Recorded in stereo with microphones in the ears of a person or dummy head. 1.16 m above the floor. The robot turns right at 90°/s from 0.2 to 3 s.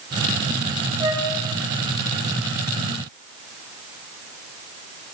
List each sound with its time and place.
1.0 s a flute: 25° right (ahead or behind), 4.5 m; by 1.3 s centre (ahead or behind), 4.5 m